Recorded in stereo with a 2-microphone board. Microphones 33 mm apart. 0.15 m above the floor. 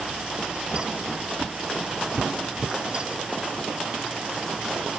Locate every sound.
0.7 s footsteps: 70° right (ahead or behind), 1.2 m; by 2.8 s 25° right (ahead or behind), 0.7 m